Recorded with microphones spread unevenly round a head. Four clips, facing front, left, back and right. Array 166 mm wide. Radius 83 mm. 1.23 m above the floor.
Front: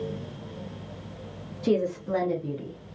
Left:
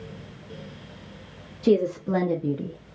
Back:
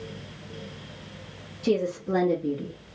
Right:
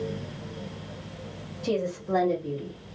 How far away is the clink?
No clink in this recording.